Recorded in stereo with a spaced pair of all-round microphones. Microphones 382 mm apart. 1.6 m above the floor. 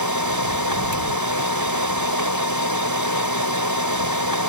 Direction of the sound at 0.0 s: 60° left (ahead or behind).